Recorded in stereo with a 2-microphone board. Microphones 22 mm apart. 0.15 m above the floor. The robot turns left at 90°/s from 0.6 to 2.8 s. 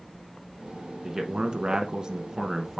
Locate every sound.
1.0 s a man speaking: 40° right, 1.3 m; by 2.8 s 165° left, 1.3 m